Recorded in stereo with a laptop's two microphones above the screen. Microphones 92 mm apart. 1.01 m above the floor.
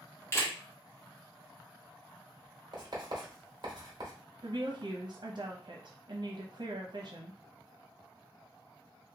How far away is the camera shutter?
About 1.0 m.